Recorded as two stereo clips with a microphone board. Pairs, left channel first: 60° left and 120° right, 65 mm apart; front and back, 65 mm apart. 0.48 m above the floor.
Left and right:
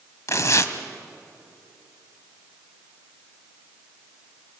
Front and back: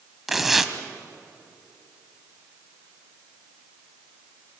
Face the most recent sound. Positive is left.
turn(degrees=95)